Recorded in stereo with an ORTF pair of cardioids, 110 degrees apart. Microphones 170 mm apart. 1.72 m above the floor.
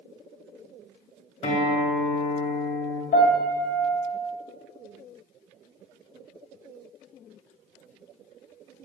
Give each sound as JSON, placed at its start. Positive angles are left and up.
{"t": 1.4, "sound": "a guitar", "azimuth_deg": 45, "distance_m": 2.0}
{"t": 3.1, "sound": "a piano", "azimuth_deg": 65, "distance_m": 2.0}